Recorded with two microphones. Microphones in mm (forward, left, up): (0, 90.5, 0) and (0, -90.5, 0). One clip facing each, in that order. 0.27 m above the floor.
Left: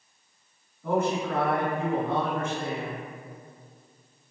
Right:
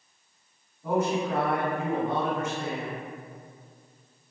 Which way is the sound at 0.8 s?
20° right (ahead or behind).